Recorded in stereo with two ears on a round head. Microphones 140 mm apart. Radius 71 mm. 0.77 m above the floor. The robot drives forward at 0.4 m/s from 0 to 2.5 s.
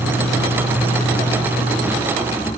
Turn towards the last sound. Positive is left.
turn(degrees=40)  # may be behind; listen again after turning